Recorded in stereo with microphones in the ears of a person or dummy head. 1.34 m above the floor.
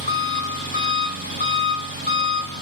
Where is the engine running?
50° left (ahead or behind), 1.5 m.